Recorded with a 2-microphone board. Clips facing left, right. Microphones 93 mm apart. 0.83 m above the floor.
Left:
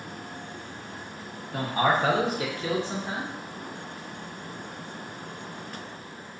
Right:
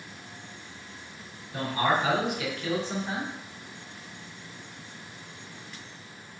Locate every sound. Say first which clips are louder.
1.5 s a man speaking: left 2 dB; 55° left (ahead or behind), 0.9 m; by 3.3 s 10° right (ahead or behind), 0.6 m